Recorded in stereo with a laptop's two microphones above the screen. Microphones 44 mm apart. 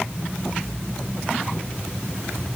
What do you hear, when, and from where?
Only background noise.